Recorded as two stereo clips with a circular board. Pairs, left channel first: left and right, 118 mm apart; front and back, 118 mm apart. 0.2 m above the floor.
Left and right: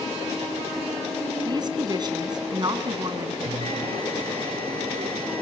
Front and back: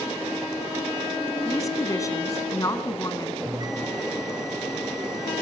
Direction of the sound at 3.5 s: 120° right.